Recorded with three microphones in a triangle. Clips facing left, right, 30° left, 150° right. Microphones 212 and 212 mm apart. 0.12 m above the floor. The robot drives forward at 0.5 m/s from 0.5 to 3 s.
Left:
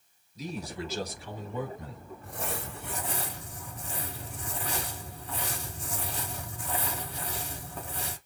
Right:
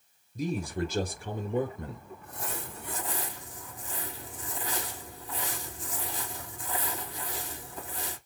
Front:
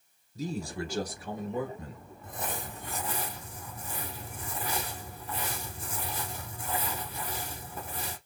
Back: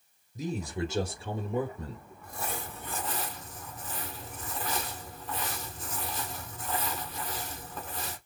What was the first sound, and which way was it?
A man speaking, 85° right.